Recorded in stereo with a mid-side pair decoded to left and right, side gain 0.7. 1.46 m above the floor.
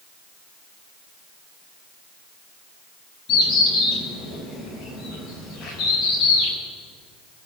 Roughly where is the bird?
Ahead left.